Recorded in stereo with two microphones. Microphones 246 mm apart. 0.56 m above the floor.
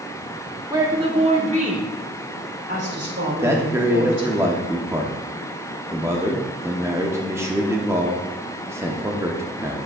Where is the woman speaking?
15° right (ahead or behind), 1.4 m; by 4.3 s 55° right (ahead or behind), 3 m.